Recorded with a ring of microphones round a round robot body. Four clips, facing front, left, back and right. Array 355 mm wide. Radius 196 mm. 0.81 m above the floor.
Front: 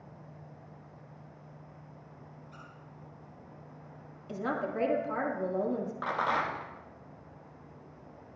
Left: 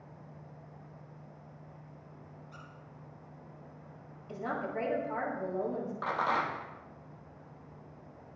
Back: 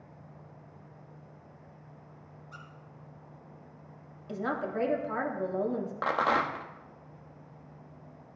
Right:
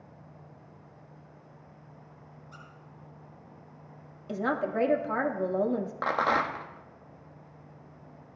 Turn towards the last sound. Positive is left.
turn(degrees=-130)